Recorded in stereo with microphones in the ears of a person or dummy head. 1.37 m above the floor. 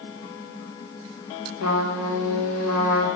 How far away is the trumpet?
About 1.2 m.